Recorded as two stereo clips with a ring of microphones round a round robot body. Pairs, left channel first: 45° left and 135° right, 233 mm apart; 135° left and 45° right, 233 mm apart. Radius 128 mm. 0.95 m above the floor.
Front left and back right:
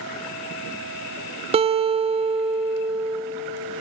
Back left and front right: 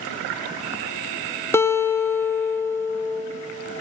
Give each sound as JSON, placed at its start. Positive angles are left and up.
{"t": 1.5, "sound": "a guitar", "azimuth_deg": -160, "distance_m": 0.5}